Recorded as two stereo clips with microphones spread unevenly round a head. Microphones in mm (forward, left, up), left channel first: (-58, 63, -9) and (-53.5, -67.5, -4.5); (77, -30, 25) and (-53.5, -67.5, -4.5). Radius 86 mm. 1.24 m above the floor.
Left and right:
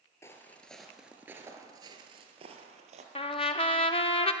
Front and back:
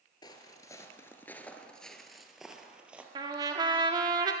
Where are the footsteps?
25° left, 1.5 m; by 3.0 s 75° right, 2 m.